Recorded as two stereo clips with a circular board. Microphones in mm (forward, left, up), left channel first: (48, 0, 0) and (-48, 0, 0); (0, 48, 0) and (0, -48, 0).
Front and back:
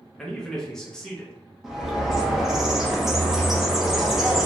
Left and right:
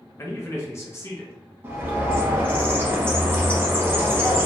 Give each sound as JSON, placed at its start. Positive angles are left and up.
{"t": 0.2, "sound": "a man speaking", "azimuth_deg": 75, "distance_m": 0.7}
{"t": 1.6, "sound": "a bird", "azimuth_deg": -100, "distance_m": 0.6}